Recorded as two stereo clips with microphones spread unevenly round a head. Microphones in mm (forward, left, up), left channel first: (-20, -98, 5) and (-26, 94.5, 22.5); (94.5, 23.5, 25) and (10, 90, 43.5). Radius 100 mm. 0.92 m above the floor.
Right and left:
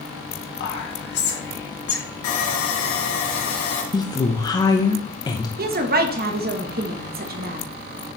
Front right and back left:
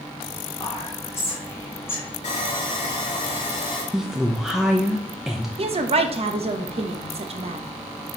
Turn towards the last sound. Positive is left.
turn(degrees=125)